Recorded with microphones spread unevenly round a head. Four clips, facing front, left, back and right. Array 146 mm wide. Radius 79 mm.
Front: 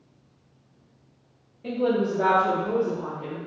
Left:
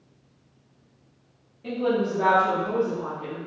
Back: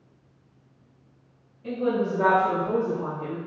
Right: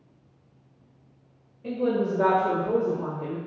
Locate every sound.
1.6 s a woman speaking: 5° right, 1.2 m; by 3.4 s 75° right, 1.1 m